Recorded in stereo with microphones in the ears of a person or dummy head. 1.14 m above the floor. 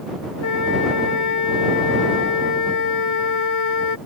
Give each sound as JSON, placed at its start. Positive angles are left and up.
{"t": 0.4, "sound": "a flute", "side_deg": 85}